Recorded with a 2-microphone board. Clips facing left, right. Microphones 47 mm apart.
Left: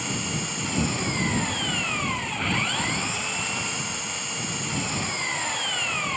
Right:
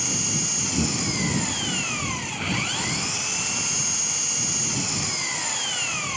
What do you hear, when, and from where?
0.0 s an engine running: 10° left (ahead or behind)